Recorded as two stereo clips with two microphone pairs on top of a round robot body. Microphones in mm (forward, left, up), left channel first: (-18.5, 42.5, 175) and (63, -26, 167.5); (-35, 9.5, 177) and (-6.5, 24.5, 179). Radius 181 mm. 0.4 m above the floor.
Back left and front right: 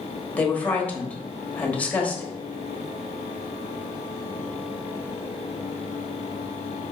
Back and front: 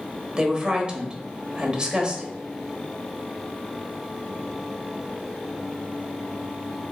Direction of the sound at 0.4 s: 70° left.